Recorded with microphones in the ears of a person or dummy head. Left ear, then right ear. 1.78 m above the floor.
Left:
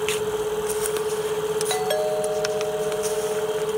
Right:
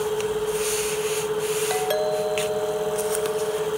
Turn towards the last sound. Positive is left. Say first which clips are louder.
# even
turn(degrees=0)  # may be behind; listen again after turning